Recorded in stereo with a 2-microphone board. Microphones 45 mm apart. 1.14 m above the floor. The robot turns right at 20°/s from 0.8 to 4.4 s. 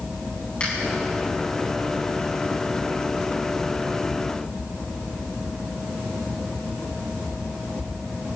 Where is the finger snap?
30° left (ahead or behind), 10 m.